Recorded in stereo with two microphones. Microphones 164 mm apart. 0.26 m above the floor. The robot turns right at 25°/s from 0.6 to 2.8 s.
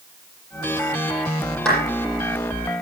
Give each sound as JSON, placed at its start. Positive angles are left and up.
{"t": 1.6, "sound": "a clap", "side_deg": 5, "distance_m": 9.5}